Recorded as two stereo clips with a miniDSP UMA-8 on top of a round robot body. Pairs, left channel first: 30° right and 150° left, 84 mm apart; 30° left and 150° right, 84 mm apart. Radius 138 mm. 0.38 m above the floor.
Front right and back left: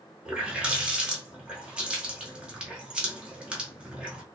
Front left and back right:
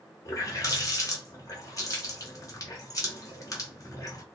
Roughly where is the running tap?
Left.